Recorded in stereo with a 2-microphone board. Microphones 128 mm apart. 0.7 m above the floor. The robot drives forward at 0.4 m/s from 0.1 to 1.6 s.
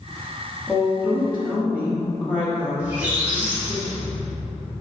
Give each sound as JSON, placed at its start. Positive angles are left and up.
{"t": 0.7, "sound": "a woman speaking", "side_deg": 10, "distance_m": 1.0}
{"t": 2.8, "sound": "a squeak", "side_deg": -10, "distance_m": 1.0}